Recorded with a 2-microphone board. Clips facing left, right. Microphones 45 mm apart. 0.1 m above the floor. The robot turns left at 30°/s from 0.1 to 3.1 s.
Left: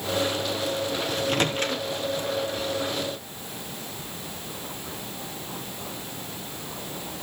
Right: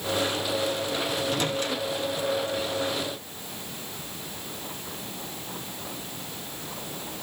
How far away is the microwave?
About 1.7 m.